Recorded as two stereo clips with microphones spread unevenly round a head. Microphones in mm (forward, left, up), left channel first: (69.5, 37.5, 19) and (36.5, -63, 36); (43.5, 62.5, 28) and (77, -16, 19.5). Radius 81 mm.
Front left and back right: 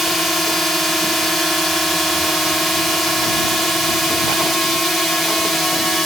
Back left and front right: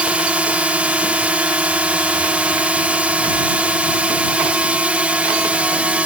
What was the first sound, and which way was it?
A drone, 5° right.